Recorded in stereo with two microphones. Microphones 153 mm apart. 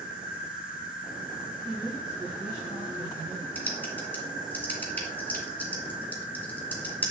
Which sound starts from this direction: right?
A woman speaking, at 1.6 s.